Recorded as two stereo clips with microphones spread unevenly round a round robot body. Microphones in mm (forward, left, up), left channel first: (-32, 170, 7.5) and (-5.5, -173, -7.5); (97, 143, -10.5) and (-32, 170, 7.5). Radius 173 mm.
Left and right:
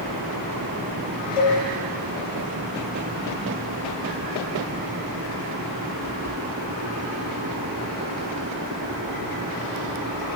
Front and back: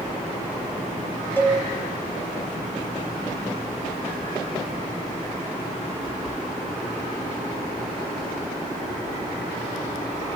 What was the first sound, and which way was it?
A cowbell, 65° left.